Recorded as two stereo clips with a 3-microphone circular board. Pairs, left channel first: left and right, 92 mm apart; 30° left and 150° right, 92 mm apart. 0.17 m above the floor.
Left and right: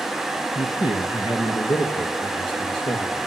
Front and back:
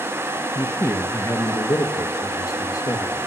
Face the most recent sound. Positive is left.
turn(degrees=75)